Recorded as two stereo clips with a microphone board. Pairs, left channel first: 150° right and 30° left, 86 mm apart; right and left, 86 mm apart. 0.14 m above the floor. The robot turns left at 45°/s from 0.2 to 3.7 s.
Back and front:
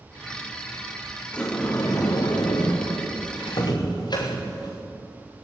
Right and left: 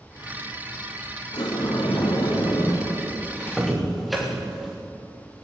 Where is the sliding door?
75° right, 5 m; by 4.8 s straight behind, 5 m.